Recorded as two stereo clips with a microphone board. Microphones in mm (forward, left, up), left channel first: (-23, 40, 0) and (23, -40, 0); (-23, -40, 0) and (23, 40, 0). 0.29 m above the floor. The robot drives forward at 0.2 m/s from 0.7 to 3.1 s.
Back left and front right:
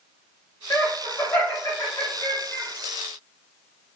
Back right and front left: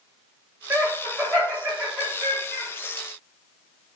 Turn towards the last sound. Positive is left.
turn(degrees=155)